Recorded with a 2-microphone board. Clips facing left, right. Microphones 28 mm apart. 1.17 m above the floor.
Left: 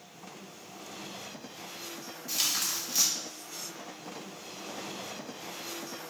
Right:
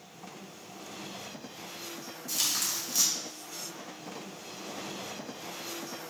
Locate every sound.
2.3 s tearing paper: 15° left (ahead or behind), 0.9 m